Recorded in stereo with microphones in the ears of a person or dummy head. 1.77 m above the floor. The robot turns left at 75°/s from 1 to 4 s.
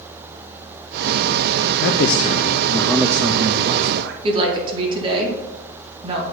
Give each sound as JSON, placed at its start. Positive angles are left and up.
{"t": 1.8, "sound": "a man speaking", "azimuth_deg": 90, "distance_m": 0.5}
{"t": 4.2, "sound": "a woman speaking", "side_deg": -30, "distance_m": 2.0}